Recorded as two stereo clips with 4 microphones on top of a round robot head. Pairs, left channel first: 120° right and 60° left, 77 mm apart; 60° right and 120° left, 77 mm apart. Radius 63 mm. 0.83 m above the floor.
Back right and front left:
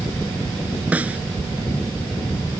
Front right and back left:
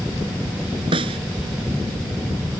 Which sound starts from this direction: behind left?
A snare drum, at 0.9 s.